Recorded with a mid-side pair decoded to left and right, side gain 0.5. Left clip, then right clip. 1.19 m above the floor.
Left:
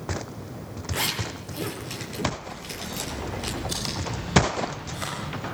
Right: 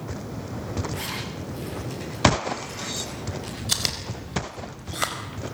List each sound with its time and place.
0.9 s a zipper: 45° left, 7.5 m
3.7 s chewing: 55° right, 4.5 m